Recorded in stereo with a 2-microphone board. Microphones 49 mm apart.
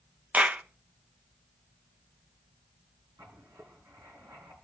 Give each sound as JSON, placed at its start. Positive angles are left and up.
{"t": 0.3, "sound": "a clap", "side_deg": -30, "distance_m": 1.0}
{"t": 3.2, "sound": "writing", "side_deg": -60, "distance_m": 5.5}